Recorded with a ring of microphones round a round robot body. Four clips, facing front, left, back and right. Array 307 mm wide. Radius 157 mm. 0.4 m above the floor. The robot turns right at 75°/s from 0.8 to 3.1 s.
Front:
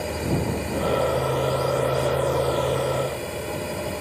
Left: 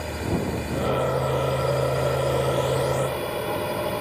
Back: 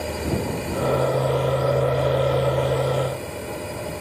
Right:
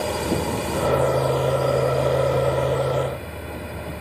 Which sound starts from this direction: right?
A drone, at 0.0 s.